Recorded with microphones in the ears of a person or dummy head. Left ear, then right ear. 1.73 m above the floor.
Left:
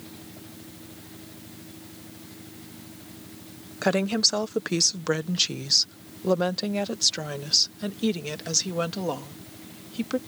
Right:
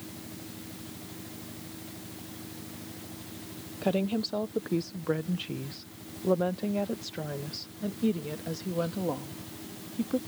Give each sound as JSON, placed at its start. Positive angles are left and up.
{"t": 3.8, "sound": "a woman speaking", "side_deg": 60}